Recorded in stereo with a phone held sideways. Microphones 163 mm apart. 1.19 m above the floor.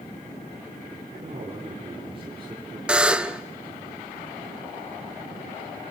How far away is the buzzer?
About 0.6 m.